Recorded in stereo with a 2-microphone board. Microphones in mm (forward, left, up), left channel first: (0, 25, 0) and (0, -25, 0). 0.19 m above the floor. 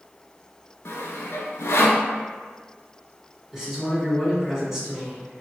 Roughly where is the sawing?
Left.